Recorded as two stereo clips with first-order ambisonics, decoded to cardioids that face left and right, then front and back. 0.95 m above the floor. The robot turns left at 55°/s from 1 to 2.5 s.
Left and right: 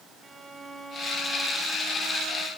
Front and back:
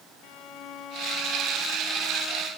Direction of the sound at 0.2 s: 15° right.